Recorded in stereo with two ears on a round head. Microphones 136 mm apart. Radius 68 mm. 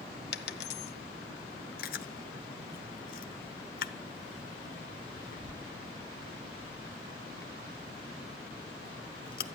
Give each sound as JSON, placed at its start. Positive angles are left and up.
{"t": 0.3, "sound": "a dropped coin", "side_deg": 80, "distance_m": 1.2}
{"t": 1.8, "sound": "chewing", "side_deg": 65, "distance_m": 1.0}